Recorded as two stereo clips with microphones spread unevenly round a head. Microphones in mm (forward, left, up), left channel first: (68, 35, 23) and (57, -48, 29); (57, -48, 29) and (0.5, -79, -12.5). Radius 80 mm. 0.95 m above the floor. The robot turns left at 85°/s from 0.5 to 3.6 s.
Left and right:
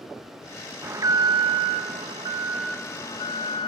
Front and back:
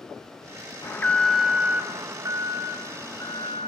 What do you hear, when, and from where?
0.8 s an alarm: 35° right, 0.8 m; by 3.7 s 90° left, 0.8 m